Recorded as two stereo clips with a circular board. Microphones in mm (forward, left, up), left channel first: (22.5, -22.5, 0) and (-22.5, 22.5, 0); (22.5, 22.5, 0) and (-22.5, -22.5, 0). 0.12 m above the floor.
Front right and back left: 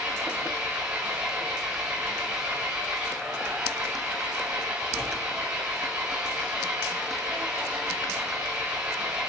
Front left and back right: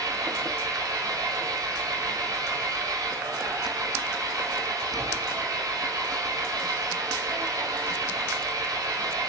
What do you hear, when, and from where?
0.0 s an engine running: 155° right, 9 m